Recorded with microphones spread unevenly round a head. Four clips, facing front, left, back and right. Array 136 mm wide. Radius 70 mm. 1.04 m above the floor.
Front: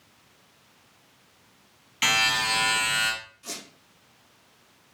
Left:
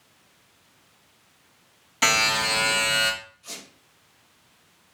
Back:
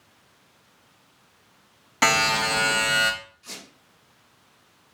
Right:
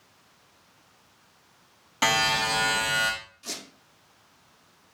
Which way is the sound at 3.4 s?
60° right.